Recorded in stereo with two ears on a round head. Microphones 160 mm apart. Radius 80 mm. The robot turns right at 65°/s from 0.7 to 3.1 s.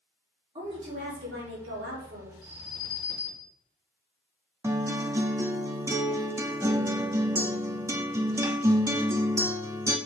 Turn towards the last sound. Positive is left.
turn(degrees=-15)  # may be behind; listen again after turning